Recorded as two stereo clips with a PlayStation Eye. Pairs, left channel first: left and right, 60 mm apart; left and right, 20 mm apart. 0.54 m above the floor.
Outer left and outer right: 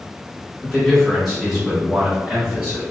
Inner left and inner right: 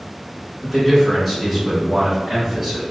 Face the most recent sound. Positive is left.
turn(degrees=-20)  # may be behind; listen again after turning